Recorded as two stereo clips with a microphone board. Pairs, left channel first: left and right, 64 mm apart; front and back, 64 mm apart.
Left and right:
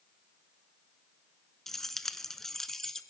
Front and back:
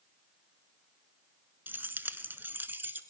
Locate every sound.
1.7 s keys jangling: 165° left, 0.8 m